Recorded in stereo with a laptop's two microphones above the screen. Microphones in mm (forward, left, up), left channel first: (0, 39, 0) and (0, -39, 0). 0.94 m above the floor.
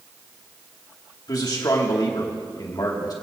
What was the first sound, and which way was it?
A man speaking, 60° left (ahead or behind).